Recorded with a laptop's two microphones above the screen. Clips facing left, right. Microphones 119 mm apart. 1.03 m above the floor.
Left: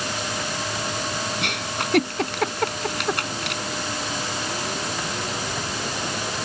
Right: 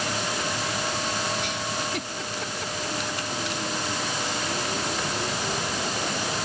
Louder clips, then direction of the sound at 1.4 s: Left 2 dB; 65° left (ahead or behind).